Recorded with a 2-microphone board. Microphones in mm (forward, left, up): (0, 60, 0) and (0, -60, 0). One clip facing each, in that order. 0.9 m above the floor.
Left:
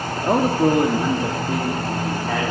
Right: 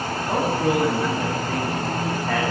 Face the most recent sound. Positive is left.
turn(degrees=5)  # may be behind; listen again after turning